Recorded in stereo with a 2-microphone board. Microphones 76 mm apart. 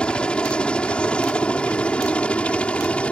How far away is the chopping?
I don't hear chopping.